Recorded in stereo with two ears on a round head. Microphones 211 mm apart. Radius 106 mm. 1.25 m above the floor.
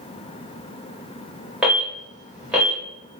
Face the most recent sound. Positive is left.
turn(degrees=-5)  # may be behind; listen again after turning